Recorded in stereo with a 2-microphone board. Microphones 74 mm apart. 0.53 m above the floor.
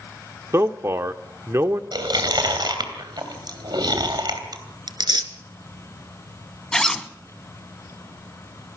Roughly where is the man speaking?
Right.